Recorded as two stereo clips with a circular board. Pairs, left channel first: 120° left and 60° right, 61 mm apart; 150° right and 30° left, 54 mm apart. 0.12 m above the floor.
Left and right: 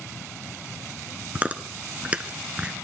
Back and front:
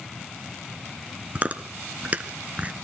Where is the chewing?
10° right, 1.1 m.